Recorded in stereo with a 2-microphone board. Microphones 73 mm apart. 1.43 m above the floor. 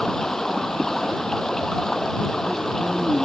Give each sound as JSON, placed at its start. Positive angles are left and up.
{"t": 0.0, "sound": "running water", "side_deg": 5}